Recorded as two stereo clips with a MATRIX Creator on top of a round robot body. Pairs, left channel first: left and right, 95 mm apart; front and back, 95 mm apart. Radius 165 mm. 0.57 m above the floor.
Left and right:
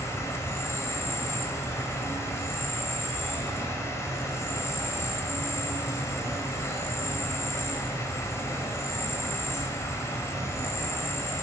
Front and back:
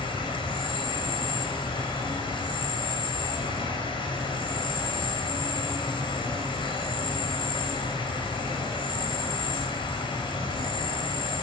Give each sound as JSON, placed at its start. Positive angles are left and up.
{"t": 0.0, "sound": "an insect", "azimuth_deg": 30, "distance_m": 1.4}